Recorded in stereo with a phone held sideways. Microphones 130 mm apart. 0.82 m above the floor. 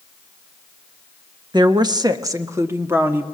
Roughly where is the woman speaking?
Right.